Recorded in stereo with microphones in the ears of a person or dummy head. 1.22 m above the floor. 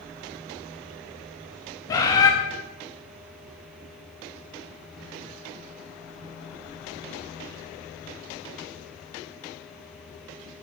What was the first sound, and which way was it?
A bird, 15° left (ahead or behind).